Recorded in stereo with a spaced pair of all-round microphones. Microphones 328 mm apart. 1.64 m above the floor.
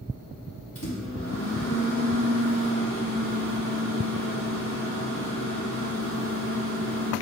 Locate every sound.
0.8 s a microwave: 40° left (ahead or behind), 1.5 m